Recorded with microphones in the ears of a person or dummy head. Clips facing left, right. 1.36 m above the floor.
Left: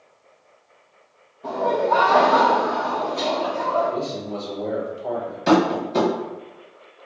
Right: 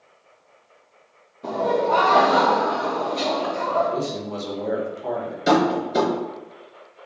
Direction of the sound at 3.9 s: 85° right.